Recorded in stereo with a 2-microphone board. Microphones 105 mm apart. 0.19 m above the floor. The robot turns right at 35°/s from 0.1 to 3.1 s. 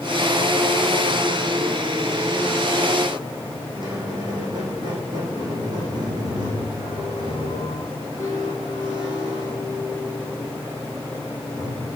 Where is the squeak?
45° right (ahead or behind), 4 m.